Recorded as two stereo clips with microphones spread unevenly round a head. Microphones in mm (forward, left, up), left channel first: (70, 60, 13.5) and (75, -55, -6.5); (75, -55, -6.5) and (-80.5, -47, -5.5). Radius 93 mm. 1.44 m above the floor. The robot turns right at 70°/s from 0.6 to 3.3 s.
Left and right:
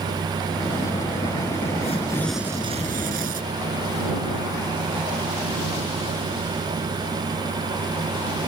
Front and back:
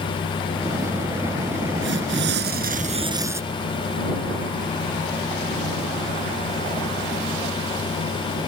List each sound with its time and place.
1.8 s tearing paper: 145° left; by 3.4 s 110° right